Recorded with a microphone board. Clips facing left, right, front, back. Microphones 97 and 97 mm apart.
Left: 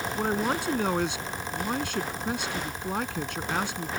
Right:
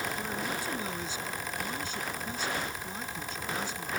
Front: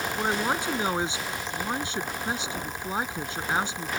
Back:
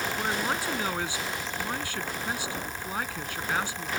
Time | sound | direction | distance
0.1 | a man speaking | 70° left | ?